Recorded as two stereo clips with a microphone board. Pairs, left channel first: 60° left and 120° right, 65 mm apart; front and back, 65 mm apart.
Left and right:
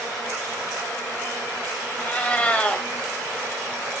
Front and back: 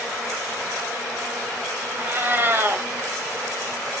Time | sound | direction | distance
2.0 | a cat meowing | 130° left | 2.5 m